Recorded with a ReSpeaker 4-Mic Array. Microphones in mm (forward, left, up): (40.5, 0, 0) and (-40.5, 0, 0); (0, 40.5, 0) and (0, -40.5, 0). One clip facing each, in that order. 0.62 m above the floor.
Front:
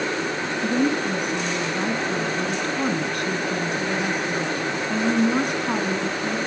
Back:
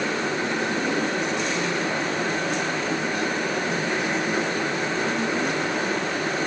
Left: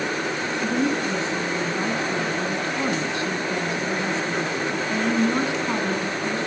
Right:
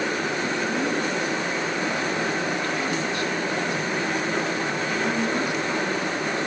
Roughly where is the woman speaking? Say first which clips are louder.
Front 3 dB, left 5 dB; ahead left.